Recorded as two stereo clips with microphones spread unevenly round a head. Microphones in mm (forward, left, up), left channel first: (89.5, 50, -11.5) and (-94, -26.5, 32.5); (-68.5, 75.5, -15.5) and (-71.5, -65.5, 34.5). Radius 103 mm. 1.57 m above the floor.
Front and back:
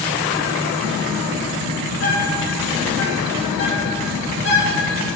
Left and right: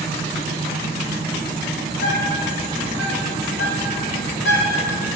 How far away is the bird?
About 2.5 m.